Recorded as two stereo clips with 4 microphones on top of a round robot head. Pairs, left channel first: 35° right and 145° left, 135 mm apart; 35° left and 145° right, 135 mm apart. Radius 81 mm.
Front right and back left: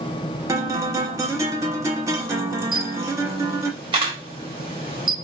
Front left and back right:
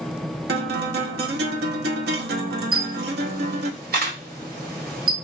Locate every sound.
0.5 s a guitar: 145° right, 0.7 m
2.7 s a camera shutter: 160° right, 1.6 m